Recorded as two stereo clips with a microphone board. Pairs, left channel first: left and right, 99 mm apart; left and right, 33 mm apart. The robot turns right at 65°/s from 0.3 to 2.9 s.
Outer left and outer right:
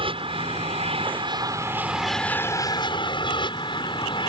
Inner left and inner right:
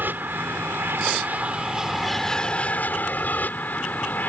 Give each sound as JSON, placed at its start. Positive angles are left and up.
{"t": 0.0, "sound": "an aircraft", "azimuth_deg": -115}